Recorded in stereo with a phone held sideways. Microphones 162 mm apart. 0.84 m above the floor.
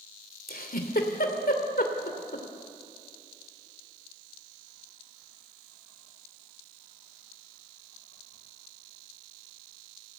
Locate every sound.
0.5 s a giggle: 70° left (ahead or behind), 2.5 m